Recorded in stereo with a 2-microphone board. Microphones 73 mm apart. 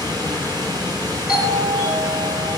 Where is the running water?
70° right (ahead or behind), 2.5 m.